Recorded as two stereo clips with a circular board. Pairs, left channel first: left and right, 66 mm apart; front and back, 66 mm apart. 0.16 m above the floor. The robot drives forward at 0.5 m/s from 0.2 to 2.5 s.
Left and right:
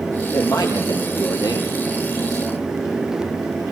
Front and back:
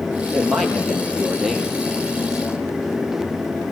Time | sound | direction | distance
0.3 | a man speaking | 85° left | 4.5 m